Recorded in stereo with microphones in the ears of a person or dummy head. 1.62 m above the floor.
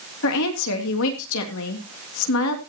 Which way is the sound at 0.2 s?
70° left (ahead or behind).